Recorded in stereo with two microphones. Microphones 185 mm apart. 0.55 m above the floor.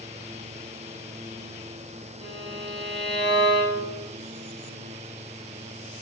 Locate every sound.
2.2 s a violin: 25° right (ahead or behind), 6.5 m